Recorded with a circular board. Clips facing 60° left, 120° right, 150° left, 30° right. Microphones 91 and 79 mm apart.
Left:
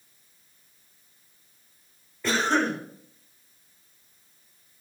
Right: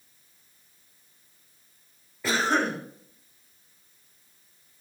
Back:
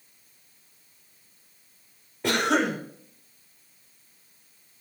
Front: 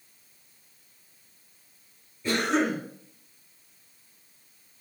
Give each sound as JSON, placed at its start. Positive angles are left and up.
{"t": 2.2, "sound": "a cough", "azimuth_deg": 155, "distance_m": 1.0}